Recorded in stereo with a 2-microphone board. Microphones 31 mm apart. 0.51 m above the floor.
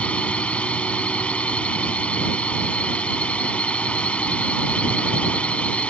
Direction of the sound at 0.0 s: 40° left (ahead or behind).